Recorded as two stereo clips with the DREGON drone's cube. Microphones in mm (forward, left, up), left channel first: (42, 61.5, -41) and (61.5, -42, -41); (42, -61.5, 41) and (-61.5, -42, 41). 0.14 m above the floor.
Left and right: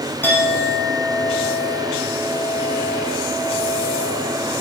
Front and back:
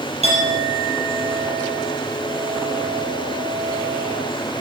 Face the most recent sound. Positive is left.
turn(degrees=170)